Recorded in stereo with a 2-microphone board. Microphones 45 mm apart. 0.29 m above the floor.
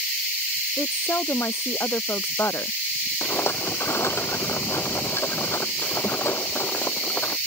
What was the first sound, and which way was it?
A woman speaking, 70° left (ahead or behind).